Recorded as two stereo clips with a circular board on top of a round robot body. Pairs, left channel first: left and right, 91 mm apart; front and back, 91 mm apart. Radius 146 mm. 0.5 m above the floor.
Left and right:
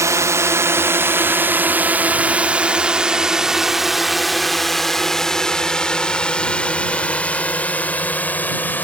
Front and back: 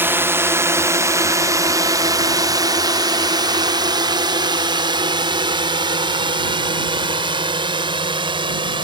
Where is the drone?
125° right; by 8.8 s 160° left.